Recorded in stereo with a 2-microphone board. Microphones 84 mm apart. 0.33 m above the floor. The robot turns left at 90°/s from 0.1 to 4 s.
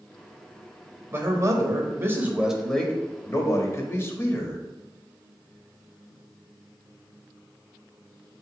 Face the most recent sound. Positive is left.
turn(degrees=55)